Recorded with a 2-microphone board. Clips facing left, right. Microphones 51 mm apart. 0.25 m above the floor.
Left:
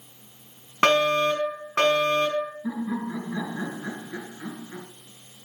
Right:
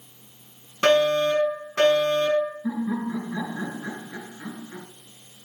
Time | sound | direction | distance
0.8 | a fire alarm | 50° left (ahead or behind) | 4.5 m
2.6 | laughter | centre (ahead or behind) | 3 m